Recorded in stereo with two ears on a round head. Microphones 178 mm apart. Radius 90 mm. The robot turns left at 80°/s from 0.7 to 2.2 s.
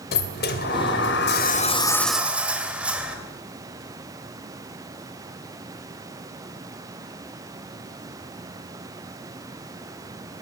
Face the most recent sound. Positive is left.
turn(degrees=-5)